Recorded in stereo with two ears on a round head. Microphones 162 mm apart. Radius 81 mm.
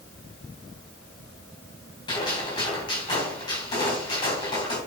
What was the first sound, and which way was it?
A gunshot, 25° left (ahead or behind).